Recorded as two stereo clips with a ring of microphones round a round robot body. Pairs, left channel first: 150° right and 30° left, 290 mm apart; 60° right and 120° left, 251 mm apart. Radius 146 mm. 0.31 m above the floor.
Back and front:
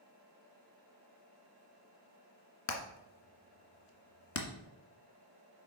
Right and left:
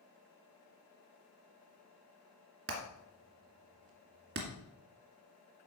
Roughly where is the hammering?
Behind.